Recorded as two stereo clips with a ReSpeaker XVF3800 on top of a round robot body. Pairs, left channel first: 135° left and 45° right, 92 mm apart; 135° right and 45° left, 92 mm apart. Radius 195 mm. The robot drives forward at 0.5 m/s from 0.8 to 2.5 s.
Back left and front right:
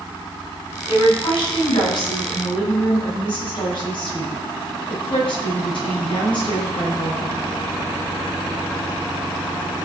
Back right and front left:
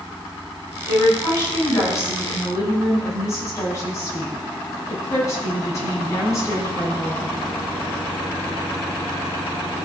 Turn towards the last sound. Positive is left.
turn(degrees=170)